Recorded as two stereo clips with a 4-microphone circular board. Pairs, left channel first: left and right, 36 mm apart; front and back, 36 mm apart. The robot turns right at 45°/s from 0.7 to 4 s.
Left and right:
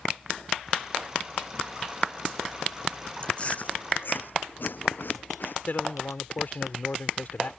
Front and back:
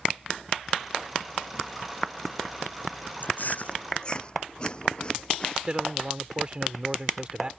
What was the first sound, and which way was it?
Chewing, 25° left.